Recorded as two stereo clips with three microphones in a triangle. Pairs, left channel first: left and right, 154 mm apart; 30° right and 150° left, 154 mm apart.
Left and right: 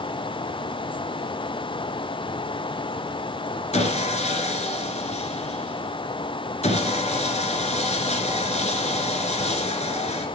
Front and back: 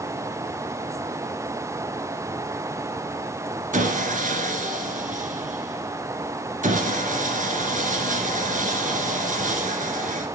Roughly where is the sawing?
Behind left.